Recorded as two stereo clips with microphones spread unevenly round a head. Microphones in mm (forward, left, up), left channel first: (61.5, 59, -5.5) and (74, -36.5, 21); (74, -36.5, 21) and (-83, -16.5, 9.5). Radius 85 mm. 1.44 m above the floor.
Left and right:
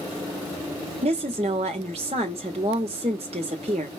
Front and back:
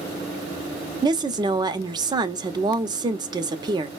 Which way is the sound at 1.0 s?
130° right.